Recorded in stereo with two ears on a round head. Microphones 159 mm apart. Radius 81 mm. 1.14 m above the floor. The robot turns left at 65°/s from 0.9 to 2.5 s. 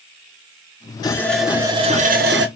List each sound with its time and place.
1.0 s a running tap: 25° left, 3.5 m; by 2.5 s 70° right, 3.5 m